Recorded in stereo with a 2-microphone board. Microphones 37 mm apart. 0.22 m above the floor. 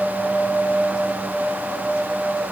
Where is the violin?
No violin in this recording.